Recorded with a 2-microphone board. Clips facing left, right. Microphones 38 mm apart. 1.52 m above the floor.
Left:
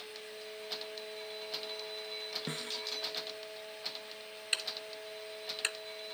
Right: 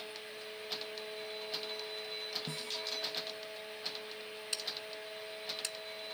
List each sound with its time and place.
2.5 s a snare drum: 55° left (ahead or behind)
4.5 s ticking: 45° left (ahead or behind)